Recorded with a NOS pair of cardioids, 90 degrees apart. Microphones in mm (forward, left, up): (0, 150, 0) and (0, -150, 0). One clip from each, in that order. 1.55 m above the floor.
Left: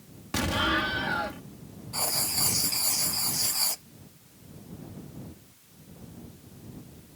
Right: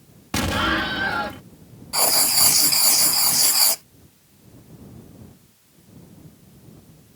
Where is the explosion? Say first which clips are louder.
Right 5 dB; 45° right.